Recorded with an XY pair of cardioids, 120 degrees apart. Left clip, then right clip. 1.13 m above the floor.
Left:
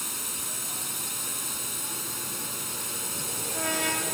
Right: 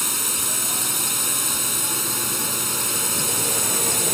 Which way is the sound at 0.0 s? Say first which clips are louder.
Right 9 dB; 50° right.